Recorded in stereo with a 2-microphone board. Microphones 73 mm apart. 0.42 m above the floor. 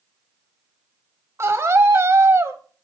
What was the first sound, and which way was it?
A scream, 35° right (ahead or behind).